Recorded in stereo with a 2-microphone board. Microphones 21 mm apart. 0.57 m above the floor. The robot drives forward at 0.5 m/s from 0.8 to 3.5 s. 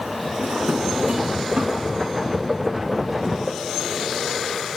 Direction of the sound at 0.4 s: 80° right.